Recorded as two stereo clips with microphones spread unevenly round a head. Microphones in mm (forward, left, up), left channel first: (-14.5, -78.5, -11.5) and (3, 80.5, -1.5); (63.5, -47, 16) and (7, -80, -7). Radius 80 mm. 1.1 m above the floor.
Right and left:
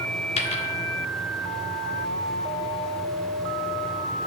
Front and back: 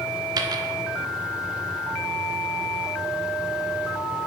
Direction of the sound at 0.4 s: 135° right.